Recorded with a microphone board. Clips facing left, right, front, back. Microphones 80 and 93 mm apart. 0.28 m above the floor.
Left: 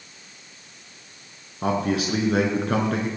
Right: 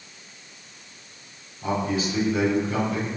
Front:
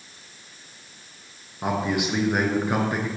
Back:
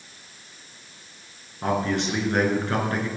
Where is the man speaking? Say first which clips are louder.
Left 2 dB, back 1 dB; 80° left, 4 m.